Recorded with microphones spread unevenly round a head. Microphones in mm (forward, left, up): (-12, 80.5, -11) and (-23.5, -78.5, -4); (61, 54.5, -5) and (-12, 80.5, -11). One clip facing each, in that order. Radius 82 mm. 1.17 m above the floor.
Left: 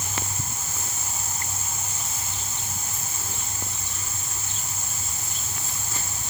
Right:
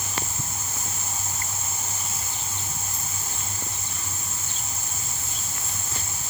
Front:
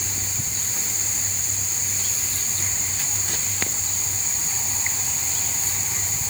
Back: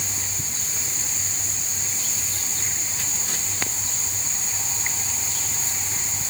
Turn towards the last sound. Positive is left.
No sound to turn to.